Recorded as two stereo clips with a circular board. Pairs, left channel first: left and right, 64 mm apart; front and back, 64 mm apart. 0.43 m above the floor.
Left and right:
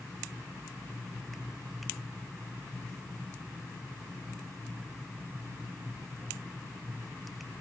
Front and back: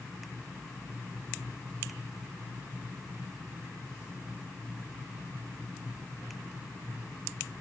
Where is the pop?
No pop in this recording.